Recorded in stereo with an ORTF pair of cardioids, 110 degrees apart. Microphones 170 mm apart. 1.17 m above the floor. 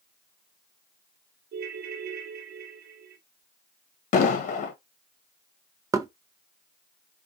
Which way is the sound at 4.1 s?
50° left.